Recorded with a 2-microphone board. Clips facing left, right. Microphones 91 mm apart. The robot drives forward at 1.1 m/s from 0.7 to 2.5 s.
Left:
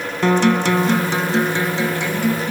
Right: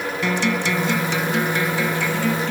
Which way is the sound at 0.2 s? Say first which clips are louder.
Left 8 dB; 55° left (ahead or behind).